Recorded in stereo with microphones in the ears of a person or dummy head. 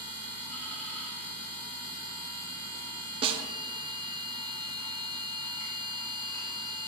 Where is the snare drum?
25° right (ahead or behind), 0.5 m.